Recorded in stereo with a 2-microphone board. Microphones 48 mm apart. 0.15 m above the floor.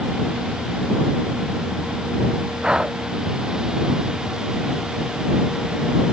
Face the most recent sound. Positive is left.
turn(degrees=-15)  # may be behind; listen again after turning